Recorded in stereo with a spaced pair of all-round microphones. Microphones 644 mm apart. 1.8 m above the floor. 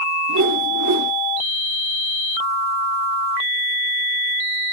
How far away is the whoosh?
About 1.2 m.